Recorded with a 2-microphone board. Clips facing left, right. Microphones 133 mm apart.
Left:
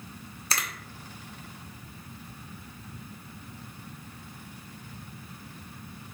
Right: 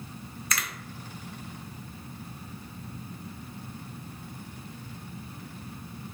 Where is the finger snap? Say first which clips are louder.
Even; 30° left (ahead or behind), 0.7 m.